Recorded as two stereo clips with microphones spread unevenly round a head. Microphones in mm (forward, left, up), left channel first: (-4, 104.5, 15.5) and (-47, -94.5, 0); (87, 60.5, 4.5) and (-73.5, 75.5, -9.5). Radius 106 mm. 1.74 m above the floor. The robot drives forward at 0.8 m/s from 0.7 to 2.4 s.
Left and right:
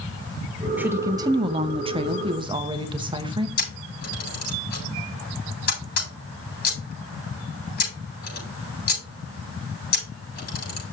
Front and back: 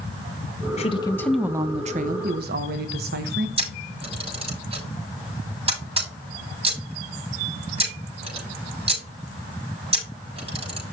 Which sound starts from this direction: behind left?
A camera shutter, at 3.6 s.